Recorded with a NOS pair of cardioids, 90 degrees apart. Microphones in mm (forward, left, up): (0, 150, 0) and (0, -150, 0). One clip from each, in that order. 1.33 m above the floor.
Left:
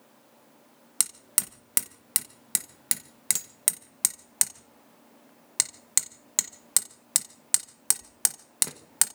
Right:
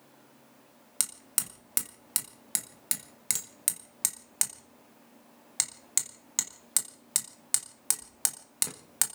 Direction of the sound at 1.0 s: 20° left.